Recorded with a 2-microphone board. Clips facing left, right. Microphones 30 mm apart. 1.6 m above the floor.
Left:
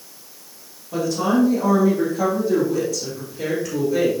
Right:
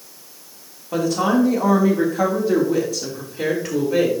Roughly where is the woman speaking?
Right.